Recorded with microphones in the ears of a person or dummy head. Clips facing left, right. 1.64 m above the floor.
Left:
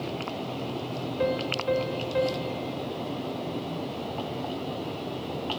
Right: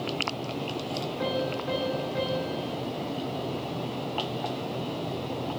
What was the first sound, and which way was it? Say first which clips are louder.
A piano: left 3 dB; 45° left (ahead or behind).